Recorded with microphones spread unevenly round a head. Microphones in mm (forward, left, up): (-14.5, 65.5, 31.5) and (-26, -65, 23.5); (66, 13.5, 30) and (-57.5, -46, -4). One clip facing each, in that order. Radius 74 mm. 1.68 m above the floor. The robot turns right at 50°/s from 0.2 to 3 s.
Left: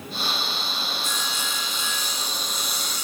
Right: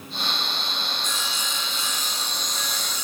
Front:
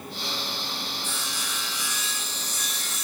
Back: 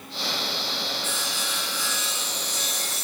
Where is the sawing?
170° left, 4 m; by 3.0 s 95° right, 4 m.